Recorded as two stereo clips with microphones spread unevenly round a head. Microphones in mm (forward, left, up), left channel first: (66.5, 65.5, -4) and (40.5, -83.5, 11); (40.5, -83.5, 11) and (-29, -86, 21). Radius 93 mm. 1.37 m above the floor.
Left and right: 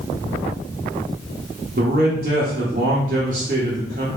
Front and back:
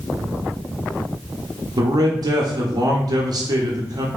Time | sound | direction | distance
1.8 | a man speaking | 150° right | 0.8 m